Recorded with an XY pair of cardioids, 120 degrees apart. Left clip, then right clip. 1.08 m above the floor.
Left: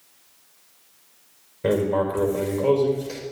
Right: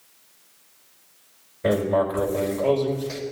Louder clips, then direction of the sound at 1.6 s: Right 1 dB; 15° left.